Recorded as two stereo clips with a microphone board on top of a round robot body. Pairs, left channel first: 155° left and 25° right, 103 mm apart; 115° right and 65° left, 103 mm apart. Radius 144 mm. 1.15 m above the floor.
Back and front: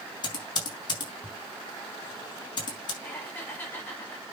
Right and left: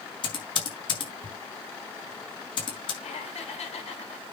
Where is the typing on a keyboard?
155° right, 4.5 m.